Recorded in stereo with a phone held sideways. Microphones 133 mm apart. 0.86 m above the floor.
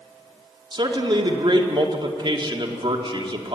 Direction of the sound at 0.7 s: 35° right (ahead or behind).